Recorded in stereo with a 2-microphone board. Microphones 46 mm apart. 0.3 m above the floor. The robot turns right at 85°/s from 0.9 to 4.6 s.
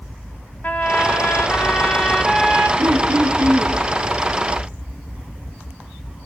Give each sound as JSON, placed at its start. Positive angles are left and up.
{"t": 0.6, "sound": "a trumpet", "azimuth_deg": 55, "distance_m": 1.7}
{"t": 2.8, "sound": "throat clearing", "azimuth_deg": -105, "distance_m": 4.0}